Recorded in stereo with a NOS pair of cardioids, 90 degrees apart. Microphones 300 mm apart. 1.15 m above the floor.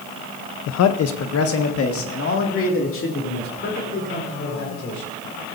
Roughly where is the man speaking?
Ahead left.